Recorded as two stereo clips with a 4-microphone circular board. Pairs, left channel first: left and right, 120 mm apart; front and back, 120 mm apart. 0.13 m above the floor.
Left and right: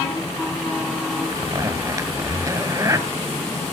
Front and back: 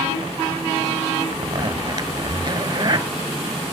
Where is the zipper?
140° right, 1.0 m.